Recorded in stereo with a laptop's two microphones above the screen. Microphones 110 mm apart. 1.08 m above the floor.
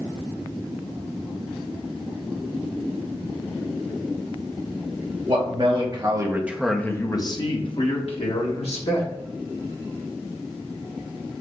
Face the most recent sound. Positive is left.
turn(degrees=75)  # may be behind; listen again after turning